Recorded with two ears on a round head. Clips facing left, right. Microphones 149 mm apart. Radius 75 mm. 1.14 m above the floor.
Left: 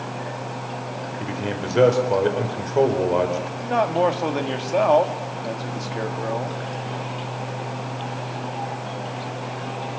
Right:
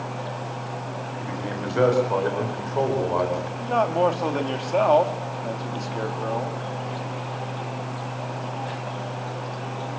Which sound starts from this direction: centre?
A man speaking, at 3.6 s.